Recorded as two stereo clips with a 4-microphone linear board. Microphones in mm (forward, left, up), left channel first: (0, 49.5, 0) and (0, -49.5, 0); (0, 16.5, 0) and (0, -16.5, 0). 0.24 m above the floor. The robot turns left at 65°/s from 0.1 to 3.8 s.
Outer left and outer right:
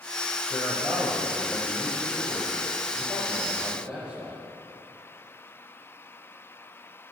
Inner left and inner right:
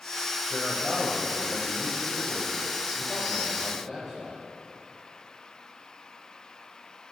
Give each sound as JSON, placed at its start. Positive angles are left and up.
{"t": 0.5, "sound": "a man speaking", "side_deg": 20, "distance_m": 1.0}